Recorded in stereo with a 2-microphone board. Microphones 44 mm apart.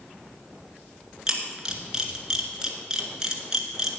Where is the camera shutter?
15° right (ahead or behind), 1.5 m.